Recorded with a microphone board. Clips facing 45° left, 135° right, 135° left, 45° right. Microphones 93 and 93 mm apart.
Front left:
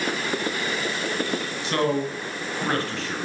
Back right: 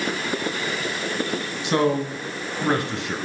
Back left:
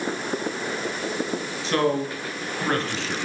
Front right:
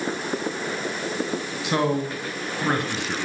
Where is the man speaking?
95° right, 1.7 m.